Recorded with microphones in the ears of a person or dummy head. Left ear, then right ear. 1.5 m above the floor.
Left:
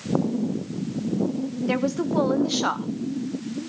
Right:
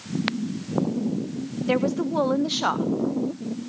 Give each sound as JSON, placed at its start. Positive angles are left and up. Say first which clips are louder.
{"t": 1.7, "sound": "a woman speaking", "louder": "right 2 dB", "side_deg": 0, "distance_m": 0.7}